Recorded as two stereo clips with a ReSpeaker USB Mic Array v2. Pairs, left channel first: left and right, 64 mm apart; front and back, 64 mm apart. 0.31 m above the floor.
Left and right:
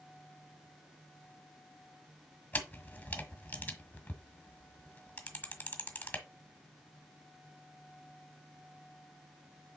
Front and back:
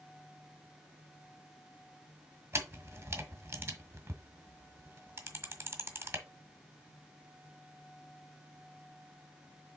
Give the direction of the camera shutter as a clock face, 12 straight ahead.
7 o'clock.